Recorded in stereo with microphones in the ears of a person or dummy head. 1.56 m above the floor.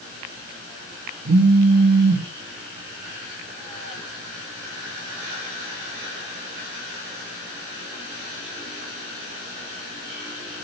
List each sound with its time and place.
1.2 s a phone buzzing: 50° right (ahead or behind), 2.5 m